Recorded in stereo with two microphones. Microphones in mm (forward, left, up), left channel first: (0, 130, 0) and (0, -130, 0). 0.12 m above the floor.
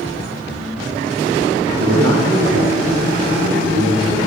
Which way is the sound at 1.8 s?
60° right (ahead or behind).